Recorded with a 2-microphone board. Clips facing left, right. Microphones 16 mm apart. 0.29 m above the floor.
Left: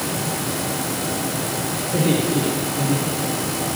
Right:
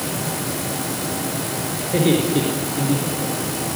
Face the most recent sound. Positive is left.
turn(degrees=-70)  # may be behind; listen again after turning